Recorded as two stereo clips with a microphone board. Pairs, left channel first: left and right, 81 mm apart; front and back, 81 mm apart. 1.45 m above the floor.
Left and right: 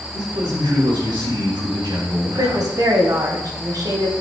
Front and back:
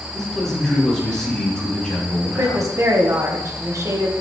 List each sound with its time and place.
0.1 s a man speaking: 85° right, 4 m; by 2.7 s 80° right, 2.5 m
2.2 s a woman speaking: 130° right, 1.5 m